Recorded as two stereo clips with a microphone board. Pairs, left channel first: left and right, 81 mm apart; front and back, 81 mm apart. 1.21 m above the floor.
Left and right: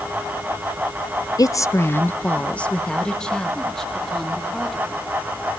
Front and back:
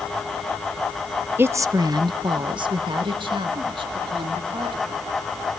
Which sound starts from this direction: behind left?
A woman speaking, at 1.4 s.